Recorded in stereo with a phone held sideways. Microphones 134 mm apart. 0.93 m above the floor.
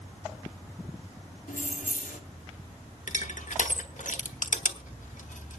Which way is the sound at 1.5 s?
75° left (ahead or behind).